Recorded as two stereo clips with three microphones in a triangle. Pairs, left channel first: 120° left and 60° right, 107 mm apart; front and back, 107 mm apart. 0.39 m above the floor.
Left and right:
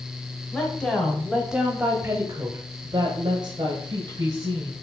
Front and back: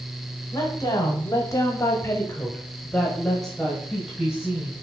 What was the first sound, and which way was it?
A woman speaking, 45° left.